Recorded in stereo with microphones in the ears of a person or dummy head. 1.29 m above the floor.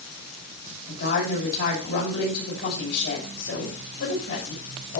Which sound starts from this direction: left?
A woman speaking, at 0.9 s.